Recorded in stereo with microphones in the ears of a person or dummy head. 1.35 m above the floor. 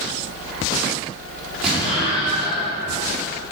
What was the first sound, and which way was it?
An explosion, 5° right (ahead or behind).